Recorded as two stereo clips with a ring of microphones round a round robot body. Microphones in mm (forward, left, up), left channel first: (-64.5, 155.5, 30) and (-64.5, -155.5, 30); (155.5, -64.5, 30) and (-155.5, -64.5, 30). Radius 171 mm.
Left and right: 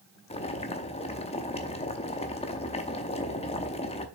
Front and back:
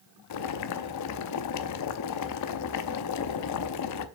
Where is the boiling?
20° left, 0.7 m.